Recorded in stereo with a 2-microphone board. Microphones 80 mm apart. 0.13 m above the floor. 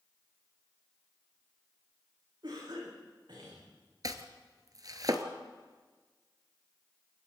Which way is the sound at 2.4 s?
65° right (ahead or behind).